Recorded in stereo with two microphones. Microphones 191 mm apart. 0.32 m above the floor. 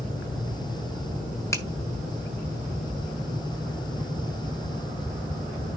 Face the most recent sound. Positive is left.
turn(degrees=15)  # may be behind; listen again after turning